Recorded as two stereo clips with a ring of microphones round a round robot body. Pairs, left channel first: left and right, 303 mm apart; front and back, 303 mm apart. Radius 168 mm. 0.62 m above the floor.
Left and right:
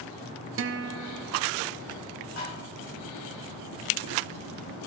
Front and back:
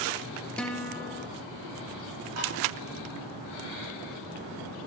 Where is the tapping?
145° left, 6.5 m.